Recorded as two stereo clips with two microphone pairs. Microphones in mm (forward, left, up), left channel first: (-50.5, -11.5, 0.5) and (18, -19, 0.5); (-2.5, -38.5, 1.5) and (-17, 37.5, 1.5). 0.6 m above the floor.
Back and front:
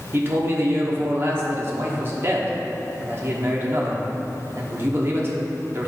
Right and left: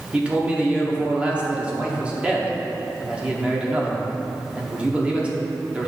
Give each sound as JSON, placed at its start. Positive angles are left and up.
{"t": 0.1, "sound": "a man speaking", "azimuth_deg": 30, "distance_m": 1.2}